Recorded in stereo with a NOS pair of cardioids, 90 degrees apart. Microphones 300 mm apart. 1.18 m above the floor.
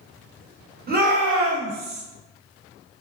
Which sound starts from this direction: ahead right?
A shout, at 0.9 s.